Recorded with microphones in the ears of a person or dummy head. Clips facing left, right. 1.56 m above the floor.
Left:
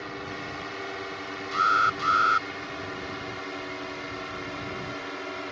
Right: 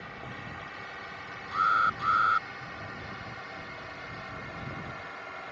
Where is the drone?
70° left (ahead or behind); by 5.5 s 65° left (ahead or behind).